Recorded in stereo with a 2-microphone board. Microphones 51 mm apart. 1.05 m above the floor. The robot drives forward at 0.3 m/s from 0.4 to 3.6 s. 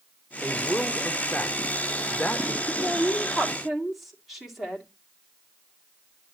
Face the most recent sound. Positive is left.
turn(degrees=0)  # may be behind; listen again after turning